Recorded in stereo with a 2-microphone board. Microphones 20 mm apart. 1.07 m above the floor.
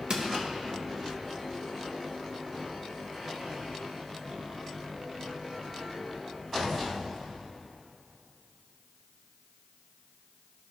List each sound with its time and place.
0.1 s crushing: 50° right (ahead or behind), 1.0 m